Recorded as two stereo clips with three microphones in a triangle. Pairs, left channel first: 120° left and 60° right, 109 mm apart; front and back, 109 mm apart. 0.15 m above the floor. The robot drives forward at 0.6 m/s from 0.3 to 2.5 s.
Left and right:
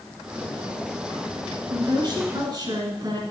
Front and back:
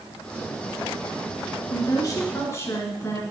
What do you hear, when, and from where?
1.7 s a woman speaking: 35° right, 2 m; by 3.2 s 50° right, 1.8 m